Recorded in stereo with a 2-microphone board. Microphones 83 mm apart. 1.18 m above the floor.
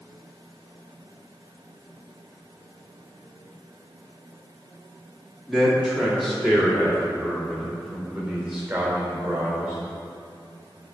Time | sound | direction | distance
5.5 | a man speaking | 5° left (ahead or behind) | 2 m